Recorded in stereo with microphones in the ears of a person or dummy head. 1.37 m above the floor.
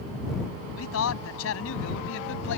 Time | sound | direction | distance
0.8 | a man speaking | 85° left | ?